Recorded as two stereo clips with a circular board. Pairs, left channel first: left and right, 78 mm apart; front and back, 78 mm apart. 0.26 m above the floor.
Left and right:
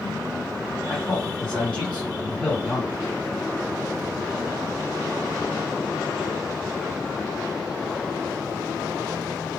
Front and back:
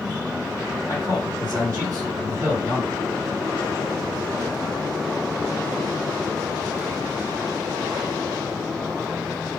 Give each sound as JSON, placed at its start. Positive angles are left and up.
{"t": 0.9, "sound": "a man speaking", "azimuth_deg": 165, "distance_m": 1.9}